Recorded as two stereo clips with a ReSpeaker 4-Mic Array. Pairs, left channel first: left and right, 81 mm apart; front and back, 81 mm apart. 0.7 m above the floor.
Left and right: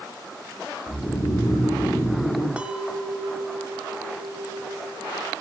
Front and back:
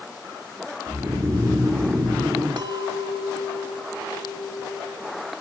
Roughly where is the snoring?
Behind left.